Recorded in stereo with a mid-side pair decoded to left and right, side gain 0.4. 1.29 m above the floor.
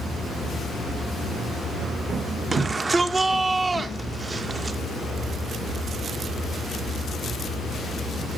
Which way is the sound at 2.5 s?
35° right.